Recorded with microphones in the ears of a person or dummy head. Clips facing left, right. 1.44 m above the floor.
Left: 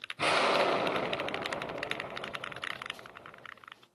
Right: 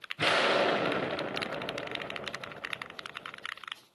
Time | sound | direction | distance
0.2 | an explosion | 10° right (ahead or behind) | 0.5 m